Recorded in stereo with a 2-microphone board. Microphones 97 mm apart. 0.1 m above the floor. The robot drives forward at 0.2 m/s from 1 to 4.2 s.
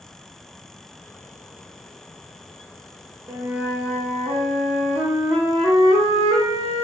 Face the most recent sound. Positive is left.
turn(degrees=-15)  # may be behind; listen again after turning